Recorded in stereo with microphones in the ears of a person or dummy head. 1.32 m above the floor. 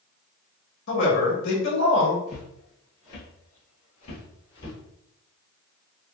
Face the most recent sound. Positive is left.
turn(degrees=25)  # may be behind; listen again after turning